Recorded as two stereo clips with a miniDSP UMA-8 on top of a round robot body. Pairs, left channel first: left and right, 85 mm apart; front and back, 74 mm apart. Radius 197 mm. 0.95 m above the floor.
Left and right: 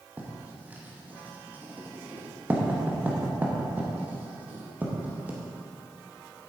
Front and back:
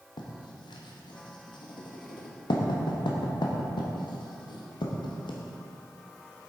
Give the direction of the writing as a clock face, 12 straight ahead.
1 o'clock.